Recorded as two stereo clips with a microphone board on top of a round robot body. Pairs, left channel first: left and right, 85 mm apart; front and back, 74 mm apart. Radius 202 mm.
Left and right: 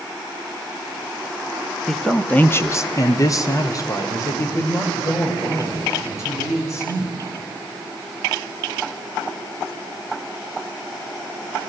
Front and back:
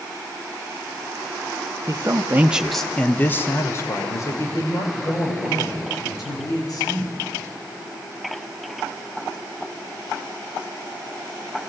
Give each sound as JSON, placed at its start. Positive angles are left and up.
{"t": 1.9, "sound": "a man speaking", "azimuth_deg": 175, "distance_m": 1.1}